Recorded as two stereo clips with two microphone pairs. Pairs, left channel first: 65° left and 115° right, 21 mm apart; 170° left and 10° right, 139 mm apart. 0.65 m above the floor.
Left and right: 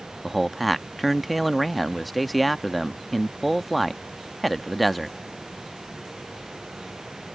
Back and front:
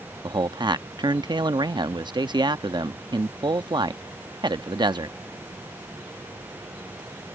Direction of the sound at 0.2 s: 20° right.